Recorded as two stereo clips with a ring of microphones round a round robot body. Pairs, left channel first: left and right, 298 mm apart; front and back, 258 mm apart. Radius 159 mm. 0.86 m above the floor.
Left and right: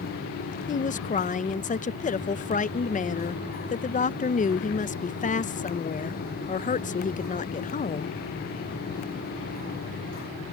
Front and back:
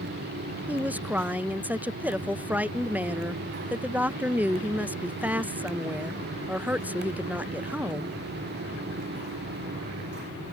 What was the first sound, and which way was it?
A woman speaking, 105° left.